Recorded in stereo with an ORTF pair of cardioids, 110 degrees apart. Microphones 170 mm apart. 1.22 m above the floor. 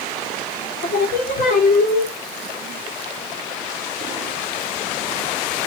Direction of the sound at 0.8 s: 55° left.